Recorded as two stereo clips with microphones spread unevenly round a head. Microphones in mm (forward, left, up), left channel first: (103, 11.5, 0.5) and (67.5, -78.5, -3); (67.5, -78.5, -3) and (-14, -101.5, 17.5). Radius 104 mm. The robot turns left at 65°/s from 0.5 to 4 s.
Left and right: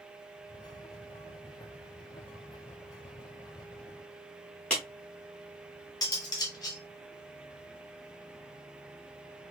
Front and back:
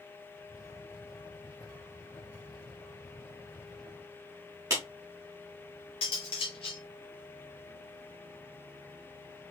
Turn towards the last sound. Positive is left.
turn(degrees=30)